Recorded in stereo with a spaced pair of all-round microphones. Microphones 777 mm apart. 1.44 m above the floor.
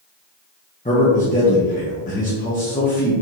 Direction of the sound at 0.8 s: 10° left (ahead or behind).